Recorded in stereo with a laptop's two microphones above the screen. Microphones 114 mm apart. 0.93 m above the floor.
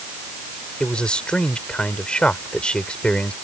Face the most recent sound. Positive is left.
turn(degrees=10)  # may be behind; listen again after turning